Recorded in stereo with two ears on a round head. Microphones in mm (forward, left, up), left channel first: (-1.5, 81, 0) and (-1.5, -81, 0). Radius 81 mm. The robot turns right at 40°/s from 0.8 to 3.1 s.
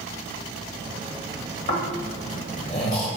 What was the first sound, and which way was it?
Snoring, 60° left (ahead or behind).